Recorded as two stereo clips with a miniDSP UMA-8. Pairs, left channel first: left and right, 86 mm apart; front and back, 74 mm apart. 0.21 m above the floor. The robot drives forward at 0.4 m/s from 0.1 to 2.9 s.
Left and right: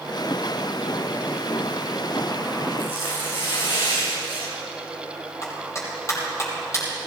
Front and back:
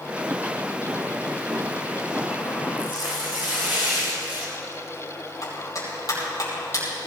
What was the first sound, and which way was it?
Tearing paper, 115° left.